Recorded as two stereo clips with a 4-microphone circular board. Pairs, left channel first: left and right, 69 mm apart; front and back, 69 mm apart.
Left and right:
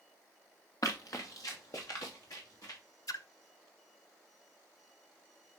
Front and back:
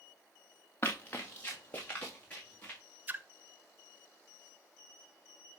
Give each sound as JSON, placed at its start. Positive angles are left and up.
{"t": 0.8, "sound": "running footsteps", "azimuth_deg": 60, "distance_m": 2.0}
{"t": 3.1, "sound": "a splash", "azimuth_deg": 120, "distance_m": 0.5}